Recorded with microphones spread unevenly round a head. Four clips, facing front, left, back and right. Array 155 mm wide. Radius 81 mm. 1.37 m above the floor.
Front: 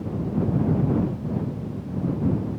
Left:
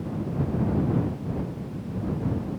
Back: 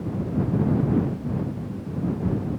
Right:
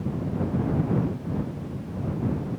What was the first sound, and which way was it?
Only background noise.